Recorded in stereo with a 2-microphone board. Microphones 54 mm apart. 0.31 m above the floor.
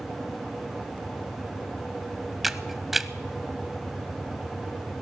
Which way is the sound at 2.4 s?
5° right (ahead or behind).